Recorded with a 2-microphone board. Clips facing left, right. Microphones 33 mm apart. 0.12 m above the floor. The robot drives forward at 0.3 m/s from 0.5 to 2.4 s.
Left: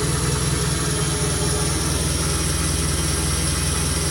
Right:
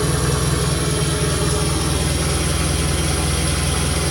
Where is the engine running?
20° right (ahead or behind), 1.8 m; by 4.1 s 30° right (ahead or behind), 1.3 m.